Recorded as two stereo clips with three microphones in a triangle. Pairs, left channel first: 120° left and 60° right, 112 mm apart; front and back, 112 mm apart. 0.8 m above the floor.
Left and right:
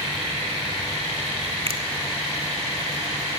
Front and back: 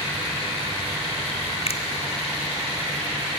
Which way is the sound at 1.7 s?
25° right.